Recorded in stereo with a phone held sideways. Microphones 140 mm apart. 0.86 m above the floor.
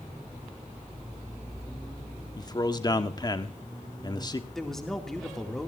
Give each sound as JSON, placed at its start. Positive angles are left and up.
{"t": 2.4, "sound": "a man speaking", "side_deg": 30, "distance_m": 1.4}
{"t": 4.5, "sound": "a man speaking", "side_deg": 5, "distance_m": 2.5}